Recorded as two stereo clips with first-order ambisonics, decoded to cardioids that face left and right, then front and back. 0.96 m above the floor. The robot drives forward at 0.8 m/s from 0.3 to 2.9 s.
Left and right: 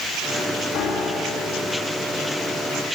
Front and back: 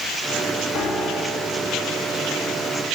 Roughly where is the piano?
Ahead left.